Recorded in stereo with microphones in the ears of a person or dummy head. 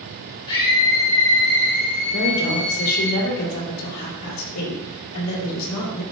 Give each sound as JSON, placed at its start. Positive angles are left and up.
{"t": 0.5, "sound": "a scream", "side_deg": 55, "distance_m": 2.5}
{"t": 2.1, "sound": "a woman speaking", "side_deg": 85, "distance_m": 3.0}